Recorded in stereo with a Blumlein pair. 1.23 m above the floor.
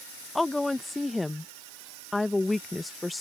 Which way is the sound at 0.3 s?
5° left.